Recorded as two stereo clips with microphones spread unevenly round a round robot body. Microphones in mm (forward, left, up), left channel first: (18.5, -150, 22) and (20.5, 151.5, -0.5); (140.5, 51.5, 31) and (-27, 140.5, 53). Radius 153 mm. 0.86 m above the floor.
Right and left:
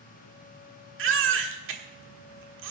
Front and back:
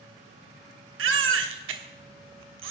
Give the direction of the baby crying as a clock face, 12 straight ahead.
7 o'clock.